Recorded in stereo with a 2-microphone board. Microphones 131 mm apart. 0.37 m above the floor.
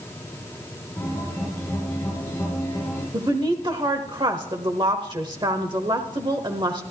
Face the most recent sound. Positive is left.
turn(degrees=-35)  # may be behind; listen again after turning